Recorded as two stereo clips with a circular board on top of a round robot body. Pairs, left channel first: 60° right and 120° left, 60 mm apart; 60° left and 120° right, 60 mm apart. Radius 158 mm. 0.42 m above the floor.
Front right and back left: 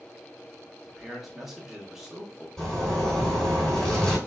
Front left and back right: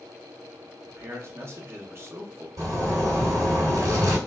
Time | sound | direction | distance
0.9 | a man speaking | 155° right | 1.7 m
2.6 | a zipper | 140° right | 2.5 m